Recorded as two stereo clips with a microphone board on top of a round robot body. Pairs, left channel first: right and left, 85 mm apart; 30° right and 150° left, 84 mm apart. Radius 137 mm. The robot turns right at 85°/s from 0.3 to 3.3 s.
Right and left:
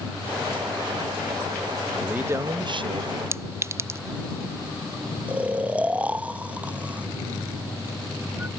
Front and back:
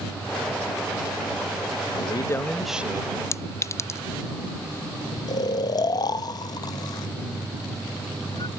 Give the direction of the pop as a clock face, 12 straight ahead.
No pop in this recording.